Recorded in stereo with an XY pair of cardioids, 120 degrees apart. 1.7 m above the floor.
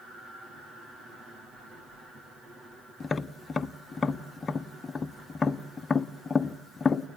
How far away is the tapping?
About 0.9 m.